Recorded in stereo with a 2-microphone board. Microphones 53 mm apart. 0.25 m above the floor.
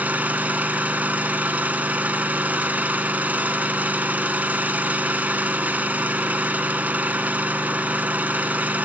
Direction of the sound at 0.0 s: 30° right (ahead or behind).